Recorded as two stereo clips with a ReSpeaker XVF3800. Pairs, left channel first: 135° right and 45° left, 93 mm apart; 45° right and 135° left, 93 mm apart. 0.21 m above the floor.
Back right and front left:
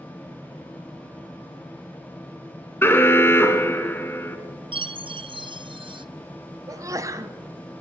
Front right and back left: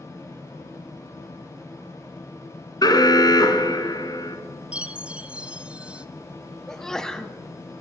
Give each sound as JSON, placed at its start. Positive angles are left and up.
{"t": 2.8, "sound": "an alarm", "azimuth_deg": -75, "distance_m": 2.0}
{"t": 4.7, "sound": "a chime", "azimuth_deg": 60, "distance_m": 0.5}
{"t": 6.7, "sound": "a sneeze", "azimuth_deg": 35, "distance_m": 1.3}